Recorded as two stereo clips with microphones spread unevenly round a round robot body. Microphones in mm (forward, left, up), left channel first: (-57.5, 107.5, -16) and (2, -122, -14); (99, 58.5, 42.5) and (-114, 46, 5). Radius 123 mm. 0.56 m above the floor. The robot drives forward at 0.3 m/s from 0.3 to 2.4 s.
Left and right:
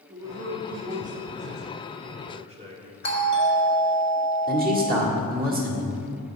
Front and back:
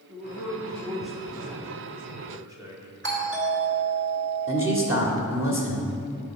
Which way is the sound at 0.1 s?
85° right.